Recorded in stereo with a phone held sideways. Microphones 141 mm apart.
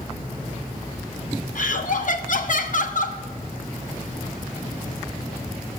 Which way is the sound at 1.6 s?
65° left (ahead or behind).